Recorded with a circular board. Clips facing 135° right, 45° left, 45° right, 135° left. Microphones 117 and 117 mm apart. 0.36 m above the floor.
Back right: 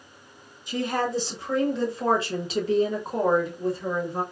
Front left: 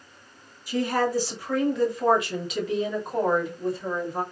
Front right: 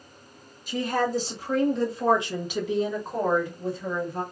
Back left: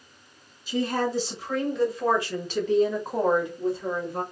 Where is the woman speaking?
70° right, 1.6 m; by 4.2 s 165° left, 1.2 m.